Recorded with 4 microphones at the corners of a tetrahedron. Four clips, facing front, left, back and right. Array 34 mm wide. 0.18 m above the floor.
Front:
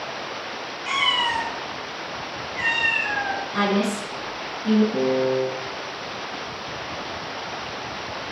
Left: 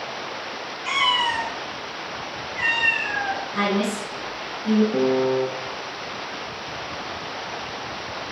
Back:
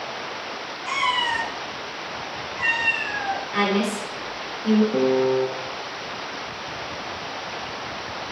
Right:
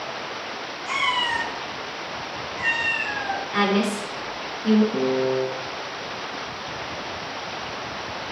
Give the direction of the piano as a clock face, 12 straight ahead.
7 o'clock.